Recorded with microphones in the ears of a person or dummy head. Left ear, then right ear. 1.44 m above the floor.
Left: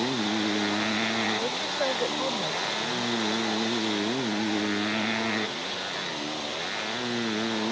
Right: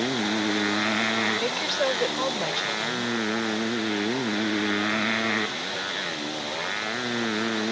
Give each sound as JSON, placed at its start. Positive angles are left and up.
{"t": 0.0, "sound": "a motorcycle", "side_deg": -20}
{"t": 1.4, "sound": "a woman speaking", "side_deg": -35}